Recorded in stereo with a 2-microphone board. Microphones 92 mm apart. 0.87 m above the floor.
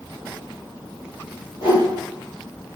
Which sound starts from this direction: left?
A whoosh, at 1.6 s.